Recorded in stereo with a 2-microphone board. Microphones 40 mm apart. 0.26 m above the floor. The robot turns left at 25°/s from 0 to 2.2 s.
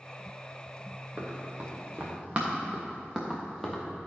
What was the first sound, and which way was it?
Running footsteps, 25° right (ahead or behind).